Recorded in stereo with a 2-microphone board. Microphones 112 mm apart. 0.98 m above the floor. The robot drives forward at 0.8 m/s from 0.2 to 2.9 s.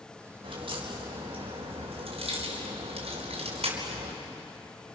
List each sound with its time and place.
0.4 s a crack: 50° right (ahead or behind), 5.5 m; by 4.1 s 70° right (ahead or behind), 4.5 m